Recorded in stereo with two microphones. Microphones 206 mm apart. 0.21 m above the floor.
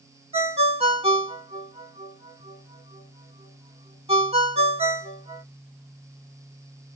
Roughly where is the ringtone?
Right.